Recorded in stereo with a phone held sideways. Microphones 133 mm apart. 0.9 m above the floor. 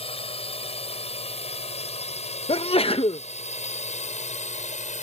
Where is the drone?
45° left (ahead or behind); by 5.0 s 60° left (ahead or behind).